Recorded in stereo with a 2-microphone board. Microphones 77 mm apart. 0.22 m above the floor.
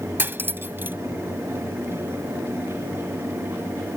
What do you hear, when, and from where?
0.2 s cutlery clinking: 30° right (ahead or behind)